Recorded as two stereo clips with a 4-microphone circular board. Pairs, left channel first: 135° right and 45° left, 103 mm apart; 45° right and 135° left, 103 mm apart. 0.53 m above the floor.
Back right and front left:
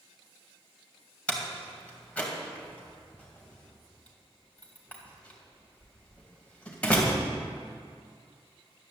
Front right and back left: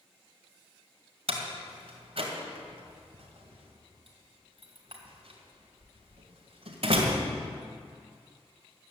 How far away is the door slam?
About 2 m.